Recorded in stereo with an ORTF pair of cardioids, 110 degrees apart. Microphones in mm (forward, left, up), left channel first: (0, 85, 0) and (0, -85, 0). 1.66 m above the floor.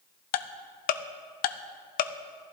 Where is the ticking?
60° left, 0.6 m.